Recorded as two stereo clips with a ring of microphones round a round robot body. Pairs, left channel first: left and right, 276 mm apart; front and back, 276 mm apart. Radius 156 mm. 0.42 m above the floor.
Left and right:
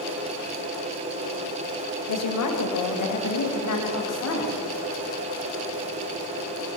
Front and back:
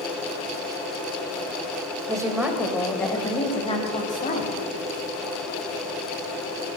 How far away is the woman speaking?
About 2 m.